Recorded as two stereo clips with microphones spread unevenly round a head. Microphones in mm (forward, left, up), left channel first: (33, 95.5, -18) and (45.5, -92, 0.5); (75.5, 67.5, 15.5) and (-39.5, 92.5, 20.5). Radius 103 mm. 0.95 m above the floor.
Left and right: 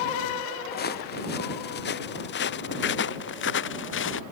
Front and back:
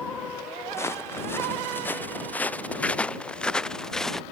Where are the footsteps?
55° left; by 4.2 s 75° left.